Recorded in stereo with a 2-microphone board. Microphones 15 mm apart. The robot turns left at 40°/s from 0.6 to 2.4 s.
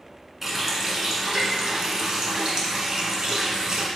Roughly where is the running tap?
Ahead right.